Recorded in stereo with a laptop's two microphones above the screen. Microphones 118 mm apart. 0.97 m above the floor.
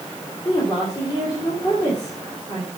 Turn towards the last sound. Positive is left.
turn(degrees=30)  # may be behind; listen again after turning